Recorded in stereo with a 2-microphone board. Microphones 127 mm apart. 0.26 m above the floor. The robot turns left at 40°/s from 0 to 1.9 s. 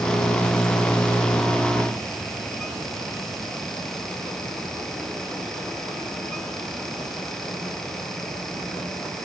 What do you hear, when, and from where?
Only background noise.